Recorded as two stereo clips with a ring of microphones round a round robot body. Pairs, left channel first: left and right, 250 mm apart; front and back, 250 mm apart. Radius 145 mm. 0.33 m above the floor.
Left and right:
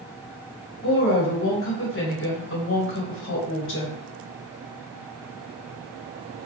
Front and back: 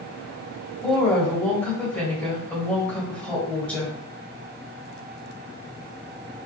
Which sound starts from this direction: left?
A woman speaking, at 0.8 s.